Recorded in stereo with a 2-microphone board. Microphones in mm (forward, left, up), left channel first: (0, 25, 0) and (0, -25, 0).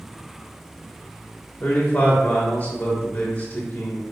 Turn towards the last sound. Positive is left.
turn(degrees=30)  # may be behind; listen again after turning